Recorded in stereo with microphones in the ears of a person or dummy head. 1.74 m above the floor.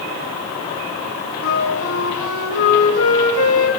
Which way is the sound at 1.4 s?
80° left.